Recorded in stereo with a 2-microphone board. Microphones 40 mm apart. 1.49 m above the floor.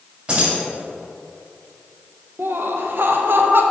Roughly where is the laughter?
Right.